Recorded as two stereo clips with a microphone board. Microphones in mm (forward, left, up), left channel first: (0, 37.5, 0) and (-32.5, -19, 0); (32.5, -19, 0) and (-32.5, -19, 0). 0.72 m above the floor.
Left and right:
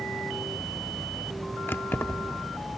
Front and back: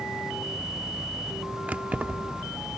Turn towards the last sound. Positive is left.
turn(degrees=115)